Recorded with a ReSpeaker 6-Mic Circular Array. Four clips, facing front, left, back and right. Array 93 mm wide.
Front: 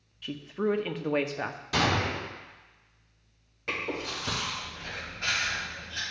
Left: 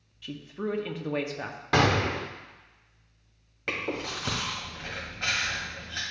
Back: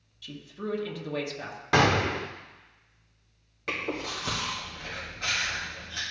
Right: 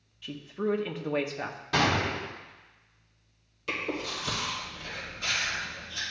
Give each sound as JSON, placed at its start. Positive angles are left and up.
{"t": 0.2, "sound": "a woman speaking", "azimuth_deg": -5, "distance_m": 0.7}
{"t": 1.7, "sound": "a gunshot", "azimuth_deg": 140, "distance_m": 0.9}
{"t": 3.7, "sound": "chewing", "azimuth_deg": 100, "distance_m": 2.5}